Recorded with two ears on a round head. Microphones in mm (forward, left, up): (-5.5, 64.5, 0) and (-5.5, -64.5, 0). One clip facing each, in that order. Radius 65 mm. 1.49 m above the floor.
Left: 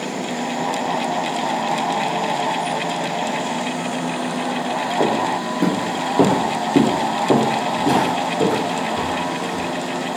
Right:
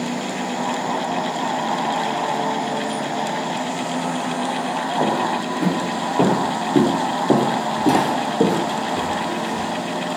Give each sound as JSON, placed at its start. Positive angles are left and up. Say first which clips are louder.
{"t": 5.0, "sound": "footsteps", "louder": "left 1 dB", "side_deg": 30, "distance_m": 1.7}